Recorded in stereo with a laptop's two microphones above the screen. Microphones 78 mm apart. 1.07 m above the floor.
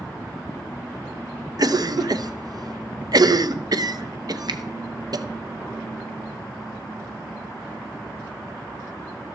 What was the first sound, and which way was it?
A cough, 55° right (ahead or behind).